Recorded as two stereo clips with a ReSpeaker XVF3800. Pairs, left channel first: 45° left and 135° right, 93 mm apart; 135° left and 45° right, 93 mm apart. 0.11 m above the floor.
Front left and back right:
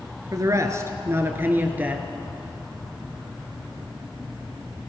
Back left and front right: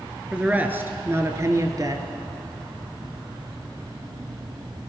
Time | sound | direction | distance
0.3 | a man speaking | 115° right | 1.5 m